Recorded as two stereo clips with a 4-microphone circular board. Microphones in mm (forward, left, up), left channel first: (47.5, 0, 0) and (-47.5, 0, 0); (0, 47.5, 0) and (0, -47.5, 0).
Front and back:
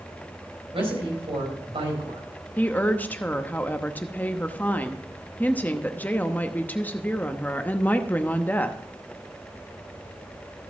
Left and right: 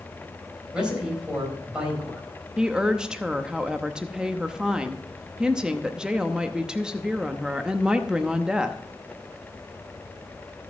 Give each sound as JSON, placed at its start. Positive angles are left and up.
{"t": 0.7, "sound": "a man speaking", "azimuth_deg": -170, "distance_m": 4.0}
{"t": 2.6, "sound": "a woman speaking", "azimuth_deg": -25, "distance_m": 0.8}